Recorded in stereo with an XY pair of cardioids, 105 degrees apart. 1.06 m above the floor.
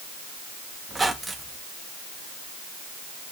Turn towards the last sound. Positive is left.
turn(degrees=-15)